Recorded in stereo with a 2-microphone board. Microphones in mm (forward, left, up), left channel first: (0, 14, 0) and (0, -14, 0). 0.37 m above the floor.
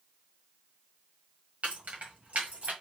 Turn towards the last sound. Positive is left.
turn(degrees=-65)  # may be behind; listen again after turning